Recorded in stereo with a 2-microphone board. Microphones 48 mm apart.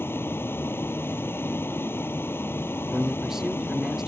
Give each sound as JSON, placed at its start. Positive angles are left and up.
{"t": 0.0, "sound": "a vehicle", "side_deg": 50}
{"t": 2.9, "sound": "a man speaking", "side_deg": -10}